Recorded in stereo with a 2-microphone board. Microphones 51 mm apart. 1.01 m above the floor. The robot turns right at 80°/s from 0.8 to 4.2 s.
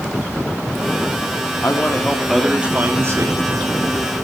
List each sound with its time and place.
1.6 s a man speaking: 120° left, 2 m; by 4.2 s 30° right, 2 m